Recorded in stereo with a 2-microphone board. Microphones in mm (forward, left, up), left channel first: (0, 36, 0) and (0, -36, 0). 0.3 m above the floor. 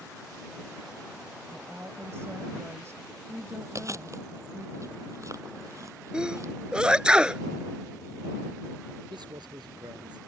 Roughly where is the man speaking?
Right.